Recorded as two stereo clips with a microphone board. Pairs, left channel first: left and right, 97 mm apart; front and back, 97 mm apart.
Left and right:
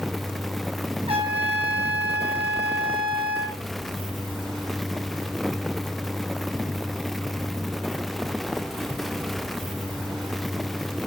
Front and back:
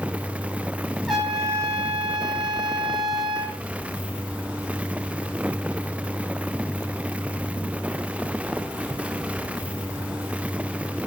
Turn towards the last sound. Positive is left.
turn(degrees=-90)